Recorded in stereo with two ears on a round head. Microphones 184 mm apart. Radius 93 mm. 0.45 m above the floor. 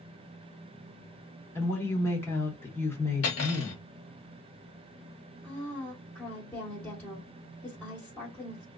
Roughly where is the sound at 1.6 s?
Centre.